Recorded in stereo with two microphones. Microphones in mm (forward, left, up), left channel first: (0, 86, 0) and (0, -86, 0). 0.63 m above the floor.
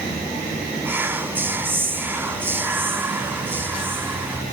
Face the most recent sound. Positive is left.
turn(degrees=-10)  # may be behind; listen again after turning